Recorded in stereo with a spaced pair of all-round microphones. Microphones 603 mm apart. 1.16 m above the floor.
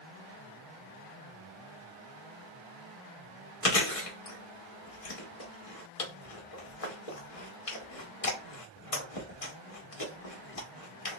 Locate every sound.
3.6 s chewing: 65° left (ahead or behind), 1.0 m